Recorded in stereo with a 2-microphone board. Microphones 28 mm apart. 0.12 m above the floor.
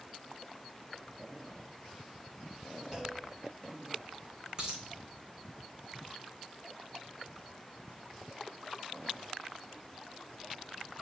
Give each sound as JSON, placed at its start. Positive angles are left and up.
{"t": 2.9, "sound": "a clunk", "side_deg": -15, "distance_m": 2.5}
{"t": 4.6, "sound": "a dropped coin", "side_deg": -25, "distance_m": 1.5}